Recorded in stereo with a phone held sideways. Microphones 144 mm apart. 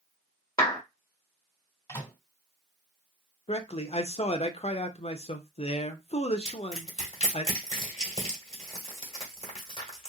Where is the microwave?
20° left (ahead or behind), 2 m.